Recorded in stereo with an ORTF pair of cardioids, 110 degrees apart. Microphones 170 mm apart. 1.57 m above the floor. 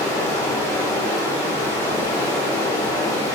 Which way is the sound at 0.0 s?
20° left.